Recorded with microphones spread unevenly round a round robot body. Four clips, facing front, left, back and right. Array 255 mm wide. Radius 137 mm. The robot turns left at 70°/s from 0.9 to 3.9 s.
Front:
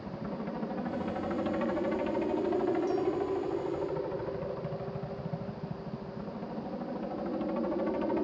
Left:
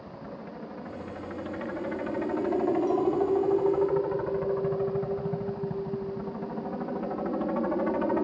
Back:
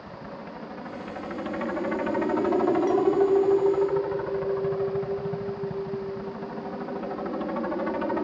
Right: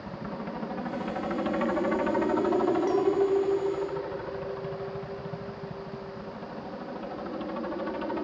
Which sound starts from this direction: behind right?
A clink, at 2.9 s.